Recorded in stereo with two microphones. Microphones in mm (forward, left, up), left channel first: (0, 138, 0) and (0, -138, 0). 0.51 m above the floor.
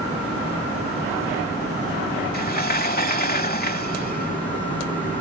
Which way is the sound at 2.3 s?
35° left (ahead or behind).